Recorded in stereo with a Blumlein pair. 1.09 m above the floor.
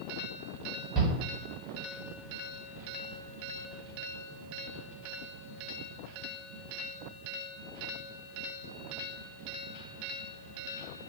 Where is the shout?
25° right, 1.3 m.